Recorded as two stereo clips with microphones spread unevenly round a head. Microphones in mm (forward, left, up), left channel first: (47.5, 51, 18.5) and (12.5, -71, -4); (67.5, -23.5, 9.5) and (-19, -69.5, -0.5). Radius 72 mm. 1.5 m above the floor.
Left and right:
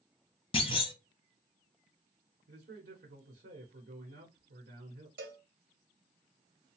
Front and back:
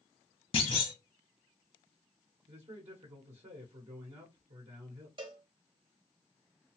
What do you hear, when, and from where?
0.5 s a clunk: 45° left, 0.7 m
2.5 s a man speaking: 125° right, 1.1 m
5.2 s a cowbell: 115° right, 1.4 m